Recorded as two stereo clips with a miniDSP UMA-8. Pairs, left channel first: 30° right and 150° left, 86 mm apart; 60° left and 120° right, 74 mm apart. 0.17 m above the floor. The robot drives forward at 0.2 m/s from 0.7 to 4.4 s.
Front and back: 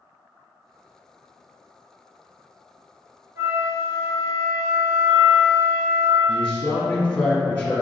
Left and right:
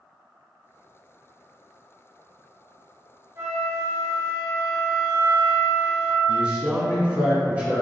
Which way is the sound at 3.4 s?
160° right.